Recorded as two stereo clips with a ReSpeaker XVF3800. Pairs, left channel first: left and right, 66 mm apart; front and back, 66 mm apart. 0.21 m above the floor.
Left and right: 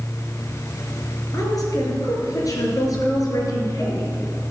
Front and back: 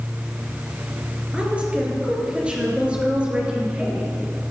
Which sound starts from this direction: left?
A woman speaking, at 1.3 s.